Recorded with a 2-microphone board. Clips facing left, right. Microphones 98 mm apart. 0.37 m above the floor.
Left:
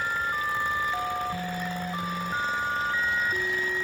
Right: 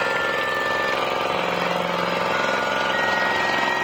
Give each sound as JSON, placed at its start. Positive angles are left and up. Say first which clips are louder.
{"t": 0.0, "sound": "an engine running", "louder": "right 6 dB", "side_deg": -75}